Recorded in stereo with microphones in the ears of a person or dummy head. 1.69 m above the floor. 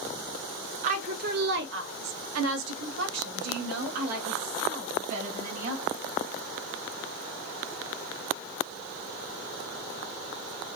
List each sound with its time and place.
0.8 s a woman speaking: 40° right (ahead or behind), 1.0 m; by 5.9 s 50° right (ahead or behind), 2.5 m